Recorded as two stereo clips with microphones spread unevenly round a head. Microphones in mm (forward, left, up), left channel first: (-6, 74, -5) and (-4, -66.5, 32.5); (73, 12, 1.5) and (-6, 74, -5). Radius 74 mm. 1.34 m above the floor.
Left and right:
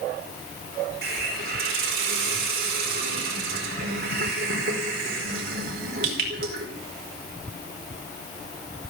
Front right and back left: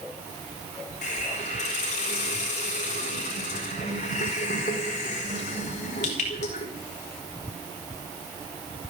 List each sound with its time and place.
1.0 s a hiss: 60° right, 5 m